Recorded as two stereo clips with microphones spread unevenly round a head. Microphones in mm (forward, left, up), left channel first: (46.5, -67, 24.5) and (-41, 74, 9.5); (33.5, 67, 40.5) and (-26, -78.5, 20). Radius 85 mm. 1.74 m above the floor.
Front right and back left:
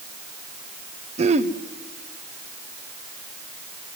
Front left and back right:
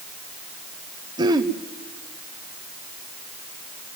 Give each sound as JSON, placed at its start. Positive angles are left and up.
{"t": 1.2, "sound": "throat clearing", "azimuth_deg": 180, "distance_m": 1.0}